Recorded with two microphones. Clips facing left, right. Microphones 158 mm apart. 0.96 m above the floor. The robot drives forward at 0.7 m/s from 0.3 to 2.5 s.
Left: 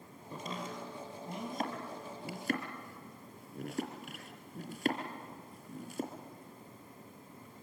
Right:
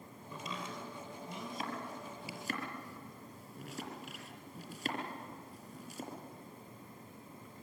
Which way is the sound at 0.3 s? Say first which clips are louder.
Left 2 dB; 50° left (ahead or behind).